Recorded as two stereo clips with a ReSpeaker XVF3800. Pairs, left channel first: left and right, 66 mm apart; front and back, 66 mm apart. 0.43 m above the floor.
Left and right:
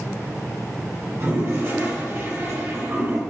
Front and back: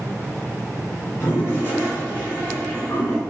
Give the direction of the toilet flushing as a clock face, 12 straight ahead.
2 o'clock.